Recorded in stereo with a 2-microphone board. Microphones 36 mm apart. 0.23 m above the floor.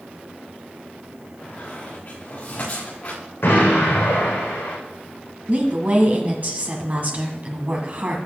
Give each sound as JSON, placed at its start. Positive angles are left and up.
{"t": 1.4, "sound": "a squeak", "side_deg": 45, "distance_m": 5.0}
{"t": 3.4, "sound": "an explosion", "side_deg": 85, "distance_m": 5.0}
{"t": 5.5, "sound": "a woman speaking", "side_deg": -45, "distance_m": 1.5}